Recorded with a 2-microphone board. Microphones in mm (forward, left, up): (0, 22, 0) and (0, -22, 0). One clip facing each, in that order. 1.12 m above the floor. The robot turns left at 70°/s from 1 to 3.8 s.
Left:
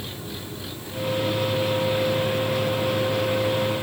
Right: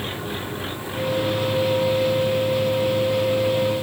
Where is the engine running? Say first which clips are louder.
Right 6 dB; 135° right; by 3.8 s 30° left.